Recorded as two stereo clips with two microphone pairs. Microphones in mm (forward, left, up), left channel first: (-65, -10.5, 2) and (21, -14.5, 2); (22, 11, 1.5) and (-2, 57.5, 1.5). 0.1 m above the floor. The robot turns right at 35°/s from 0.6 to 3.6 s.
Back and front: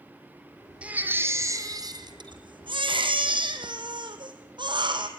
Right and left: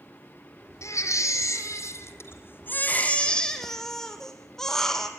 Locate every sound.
0.8 s a baby crying: 80° right, 2 m; by 5.1 s 20° left, 2 m